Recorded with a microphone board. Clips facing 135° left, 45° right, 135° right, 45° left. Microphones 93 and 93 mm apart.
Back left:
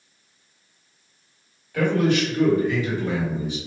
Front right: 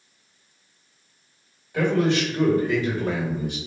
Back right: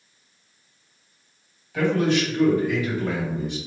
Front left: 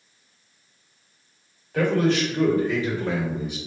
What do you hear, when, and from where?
1.7 s a man speaking: 20° left, 1.7 m; by 3.6 s 30° right, 1.8 m